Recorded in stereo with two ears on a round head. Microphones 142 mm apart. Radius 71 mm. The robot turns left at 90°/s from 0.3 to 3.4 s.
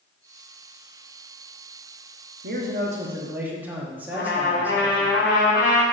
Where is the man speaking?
80° right, 1.2 m; by 5.1 s 170° right, 1.2 m.